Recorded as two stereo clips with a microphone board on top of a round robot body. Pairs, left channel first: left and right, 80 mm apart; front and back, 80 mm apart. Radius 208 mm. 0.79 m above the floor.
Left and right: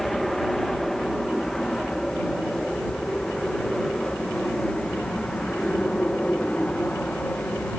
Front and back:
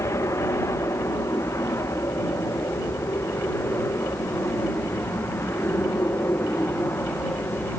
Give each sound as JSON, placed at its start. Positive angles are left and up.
{"t": 0.0, "sound": "an aircraft", "azimuth_deg": 5}